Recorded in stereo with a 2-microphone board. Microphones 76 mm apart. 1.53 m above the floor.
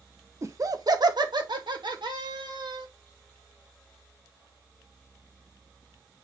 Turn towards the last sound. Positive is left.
turn(degrees=-80)